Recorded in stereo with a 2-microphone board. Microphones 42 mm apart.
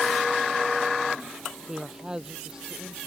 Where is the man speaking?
20° right (ahead or behind).